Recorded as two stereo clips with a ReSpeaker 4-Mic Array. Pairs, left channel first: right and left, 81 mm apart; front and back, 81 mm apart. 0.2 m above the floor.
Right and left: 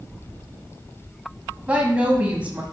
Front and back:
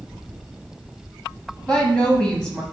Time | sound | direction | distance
1.7 | a woman speaking | 55° left | 1.6 m